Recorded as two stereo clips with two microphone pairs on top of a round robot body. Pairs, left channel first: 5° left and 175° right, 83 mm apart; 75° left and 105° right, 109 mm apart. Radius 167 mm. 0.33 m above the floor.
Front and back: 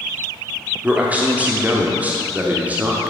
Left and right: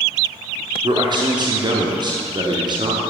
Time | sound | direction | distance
0.8 | a man speaking | 115° right | 1.3 m